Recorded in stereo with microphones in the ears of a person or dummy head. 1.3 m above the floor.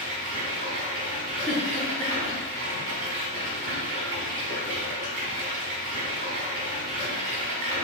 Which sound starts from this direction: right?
Running water, at 0.0 s.